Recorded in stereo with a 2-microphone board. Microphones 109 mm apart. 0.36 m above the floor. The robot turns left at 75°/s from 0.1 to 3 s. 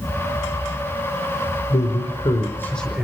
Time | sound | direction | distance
1.7 | a man speaking | 90° left | 4.5 m